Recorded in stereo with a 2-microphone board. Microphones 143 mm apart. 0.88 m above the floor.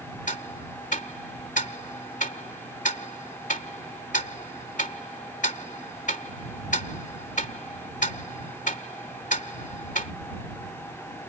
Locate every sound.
0.3 s ticking: 60° left (ahead or behind)